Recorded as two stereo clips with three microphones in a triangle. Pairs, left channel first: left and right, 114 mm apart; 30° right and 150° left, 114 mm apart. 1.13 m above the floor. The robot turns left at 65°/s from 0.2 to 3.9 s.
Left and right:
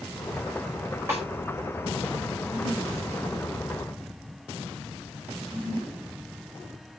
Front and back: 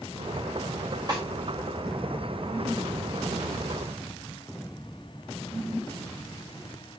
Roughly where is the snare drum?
Behind.